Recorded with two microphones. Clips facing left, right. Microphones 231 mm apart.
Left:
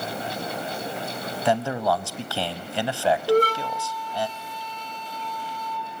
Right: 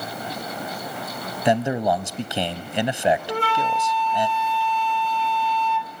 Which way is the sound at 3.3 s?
45° left (ahead or behind).